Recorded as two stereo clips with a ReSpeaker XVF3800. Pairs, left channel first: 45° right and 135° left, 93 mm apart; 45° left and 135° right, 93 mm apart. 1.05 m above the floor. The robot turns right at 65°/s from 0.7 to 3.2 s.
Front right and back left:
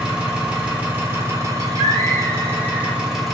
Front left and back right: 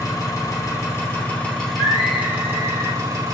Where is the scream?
25° right, 1.5 m; by 3.0 s 70° left, 1.5 m.